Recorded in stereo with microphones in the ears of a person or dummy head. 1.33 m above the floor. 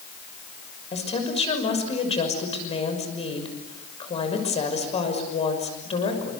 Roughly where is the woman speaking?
Left.